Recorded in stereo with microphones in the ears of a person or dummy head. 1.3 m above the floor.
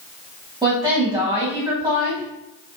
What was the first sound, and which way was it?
A woman speaking, 20° right (ahead or behind).